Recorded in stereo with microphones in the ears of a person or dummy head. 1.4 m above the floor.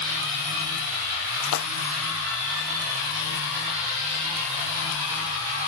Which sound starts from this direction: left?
A splash, at 1.4 s.